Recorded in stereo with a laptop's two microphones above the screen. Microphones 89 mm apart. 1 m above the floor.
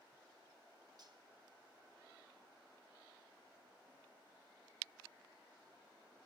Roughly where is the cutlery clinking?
Right.